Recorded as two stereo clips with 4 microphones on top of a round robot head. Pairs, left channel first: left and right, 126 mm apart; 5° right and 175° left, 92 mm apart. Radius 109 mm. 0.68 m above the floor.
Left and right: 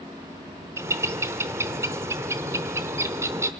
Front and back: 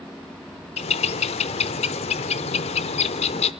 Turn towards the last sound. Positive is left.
turn(degrees=-15)